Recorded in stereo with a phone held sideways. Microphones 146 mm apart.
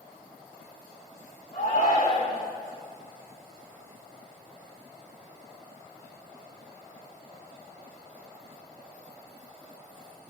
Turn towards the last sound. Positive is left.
turn(degrees=60)  # may be behind; listen again after turning